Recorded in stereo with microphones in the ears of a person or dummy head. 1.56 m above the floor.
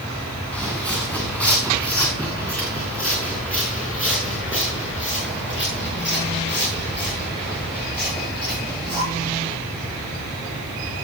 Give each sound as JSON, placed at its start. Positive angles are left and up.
{"t": 0.5, "sound": "footsteps", "side_deg": 10, "distance_m": 4.5}